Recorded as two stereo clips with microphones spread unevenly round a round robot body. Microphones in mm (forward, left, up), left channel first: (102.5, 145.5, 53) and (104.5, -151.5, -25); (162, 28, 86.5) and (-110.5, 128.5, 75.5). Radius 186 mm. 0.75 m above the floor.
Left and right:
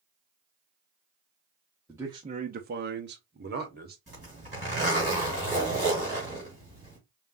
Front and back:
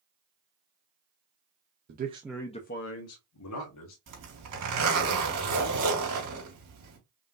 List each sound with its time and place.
1.9 s a man speaking: 160° right, 0.7 m; by 4.0 s 35° right, 1.5 m
4.1 s a zipper: 170° right, 3 m